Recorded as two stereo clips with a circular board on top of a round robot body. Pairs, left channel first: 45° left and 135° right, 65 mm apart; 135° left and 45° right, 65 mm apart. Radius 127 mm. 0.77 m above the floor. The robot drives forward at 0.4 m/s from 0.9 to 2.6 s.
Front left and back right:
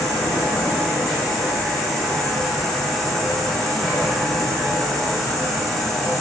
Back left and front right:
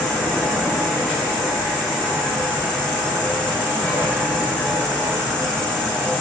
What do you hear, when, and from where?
0.0 s an insect: 60° left, 0.8 m; by 6.2 s 130° left, 0.9 m